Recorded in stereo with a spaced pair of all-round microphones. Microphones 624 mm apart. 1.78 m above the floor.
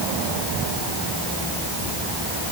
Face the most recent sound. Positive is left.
No sound to turn to.